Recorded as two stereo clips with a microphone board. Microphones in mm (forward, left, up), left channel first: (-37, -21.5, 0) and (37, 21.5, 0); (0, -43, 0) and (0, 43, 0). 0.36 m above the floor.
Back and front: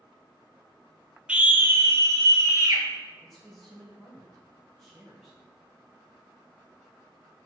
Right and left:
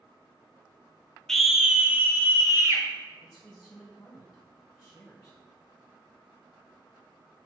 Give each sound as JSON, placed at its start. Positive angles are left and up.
{"t": 1.3, "sound": "a scream", "azimuth_deg": -15, "distance_m": 0.8}
{"t": 3.2, "sound": "a man speaking", "azimuth_deg": -60, "distance_m": 1.5}